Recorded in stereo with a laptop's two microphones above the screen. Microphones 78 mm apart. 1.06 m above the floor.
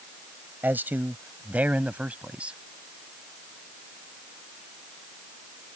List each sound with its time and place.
0.6 s a man speaking: 25° right (ahead or behind); by 2.6 s 15° right (ahead or behind)